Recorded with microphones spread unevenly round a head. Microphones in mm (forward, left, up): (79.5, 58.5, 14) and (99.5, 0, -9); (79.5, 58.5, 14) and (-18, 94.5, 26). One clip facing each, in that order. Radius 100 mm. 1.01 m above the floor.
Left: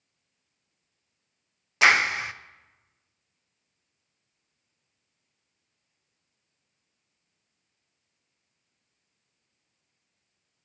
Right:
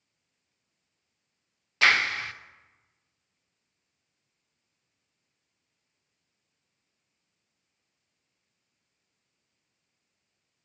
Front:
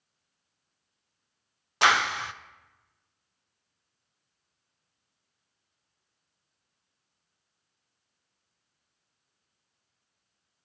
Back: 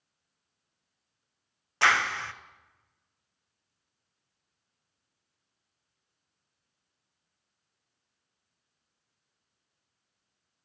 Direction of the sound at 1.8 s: 20° left.